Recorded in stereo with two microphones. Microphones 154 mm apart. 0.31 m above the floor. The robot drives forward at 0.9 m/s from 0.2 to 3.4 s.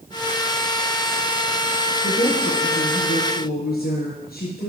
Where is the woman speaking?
75° left (ahead or behind), 4.5 m.